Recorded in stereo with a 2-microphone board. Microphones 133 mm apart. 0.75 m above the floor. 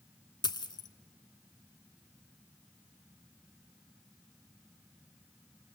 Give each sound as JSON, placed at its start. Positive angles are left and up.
{"t": 0.4, "sound": "a dropped coin", "side_deg": 35, "distance_m": 0.8}